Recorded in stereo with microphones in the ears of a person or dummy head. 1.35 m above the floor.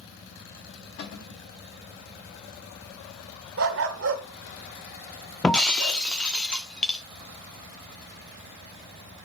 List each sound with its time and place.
1.0 s a cupboard door: 60° left (ahead or behind), 4 m
3.6 s a dog barking: 55° right (ahead or behind), 1.4 m
5.4 s breaking glass: 10° left (ahead or behind), 1.5 m